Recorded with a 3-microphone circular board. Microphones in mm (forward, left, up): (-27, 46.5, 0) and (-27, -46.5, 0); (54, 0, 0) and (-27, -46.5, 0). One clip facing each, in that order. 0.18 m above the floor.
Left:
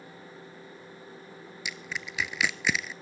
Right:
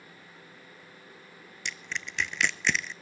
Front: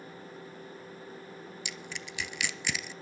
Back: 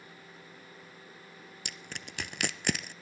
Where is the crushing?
175° left, 0.6 m.